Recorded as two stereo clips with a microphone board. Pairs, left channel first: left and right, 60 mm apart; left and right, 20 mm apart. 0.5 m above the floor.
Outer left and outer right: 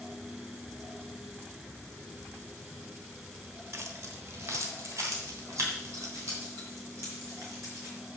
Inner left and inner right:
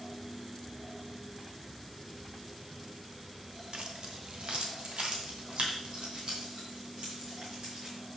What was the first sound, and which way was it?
Keys jangling, 50° right (ahead or behind).